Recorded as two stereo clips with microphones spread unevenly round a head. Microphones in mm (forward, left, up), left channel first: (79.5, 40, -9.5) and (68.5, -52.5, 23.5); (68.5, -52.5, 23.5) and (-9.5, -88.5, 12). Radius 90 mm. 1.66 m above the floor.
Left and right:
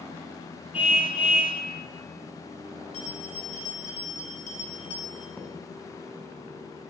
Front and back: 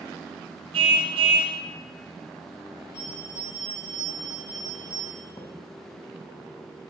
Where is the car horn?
165° right, 2 m.